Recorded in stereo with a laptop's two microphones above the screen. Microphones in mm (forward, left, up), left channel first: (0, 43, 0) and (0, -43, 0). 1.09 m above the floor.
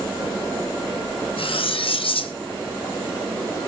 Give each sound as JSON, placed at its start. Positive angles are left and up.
{"t": 1.4, "sound": "cutlery clinking", "side_deg": 80, "distance_m": 0.5}